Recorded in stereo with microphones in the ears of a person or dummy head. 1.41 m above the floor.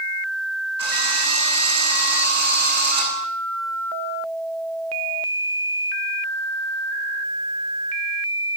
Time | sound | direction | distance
0.8 | a drill | 25° right (ahead or behind) | 8.5 m